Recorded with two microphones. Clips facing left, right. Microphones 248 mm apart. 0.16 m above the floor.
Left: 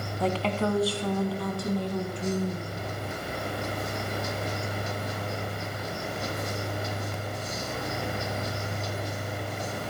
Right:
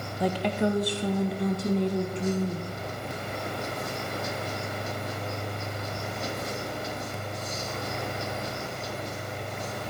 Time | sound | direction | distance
0.2 | a woman speaking | 15° right (ahead or behind) | 1.1 m